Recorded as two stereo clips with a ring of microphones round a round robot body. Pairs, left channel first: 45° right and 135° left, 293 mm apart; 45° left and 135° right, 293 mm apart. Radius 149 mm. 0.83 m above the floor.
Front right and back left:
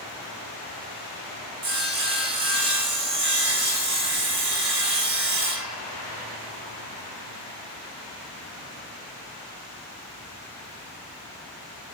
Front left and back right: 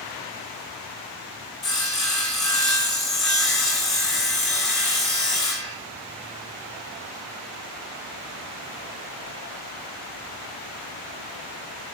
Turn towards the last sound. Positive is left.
turn(degrees=135)